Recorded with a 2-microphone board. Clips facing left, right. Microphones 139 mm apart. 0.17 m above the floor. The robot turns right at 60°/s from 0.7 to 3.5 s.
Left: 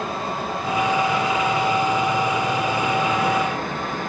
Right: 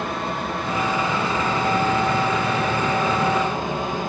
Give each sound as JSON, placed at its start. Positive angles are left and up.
{"t": 0.0, "sound": "running water", "azimuth_deg": 175, "distance_m": 1.7}